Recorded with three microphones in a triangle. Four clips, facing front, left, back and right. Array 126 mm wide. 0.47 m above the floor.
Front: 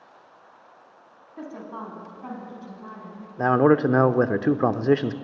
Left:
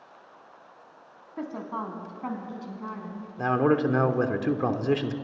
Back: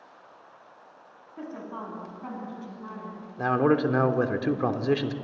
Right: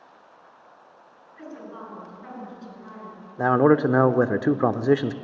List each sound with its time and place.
1.4 s a woman speaking: 80° left, 4.5 m; by 3.3 s 95° left, 5.5 m
3.4 s a man speaking: 50° right, 0.8 m